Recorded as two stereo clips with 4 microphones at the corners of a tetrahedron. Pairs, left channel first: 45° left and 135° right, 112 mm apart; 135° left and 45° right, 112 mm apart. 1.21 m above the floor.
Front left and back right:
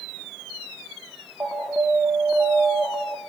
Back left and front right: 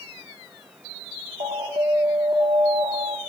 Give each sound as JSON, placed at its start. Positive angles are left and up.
{"t": 1.4, "sound": "an alarm", "azimuth_deg": -65, "distance_m": 1.6}